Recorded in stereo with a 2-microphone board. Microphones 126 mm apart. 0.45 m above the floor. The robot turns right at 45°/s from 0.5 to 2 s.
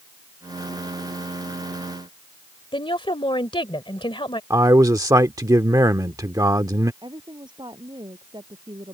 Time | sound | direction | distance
2.7 | a woman speaking | 40° left (ahead or behind) | ?
4.5 | a man speaking | 30° right (ahead or behind) | ?
7.0 | a woman speaking | 35° right (ahead or behind) | ?